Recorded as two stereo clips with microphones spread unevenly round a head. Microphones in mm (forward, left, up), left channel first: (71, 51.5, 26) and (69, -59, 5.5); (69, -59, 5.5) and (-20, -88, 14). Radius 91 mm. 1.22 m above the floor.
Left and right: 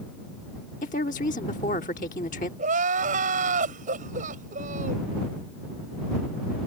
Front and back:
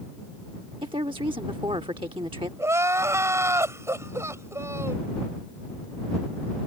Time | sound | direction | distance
0.8 | a woman speaking | 135° left | ?
2.6 | crying | 105° right | ?